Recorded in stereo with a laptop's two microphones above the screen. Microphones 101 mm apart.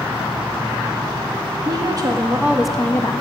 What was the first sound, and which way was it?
A woman speaking, 50° right (ahead or behind).